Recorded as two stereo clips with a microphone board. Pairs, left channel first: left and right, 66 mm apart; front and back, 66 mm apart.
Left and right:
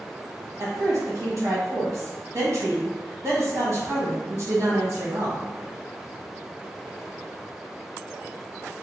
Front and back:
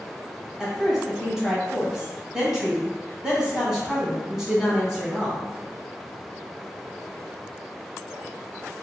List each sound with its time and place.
0.6 s a woman speaking: 90° right, 1.3 m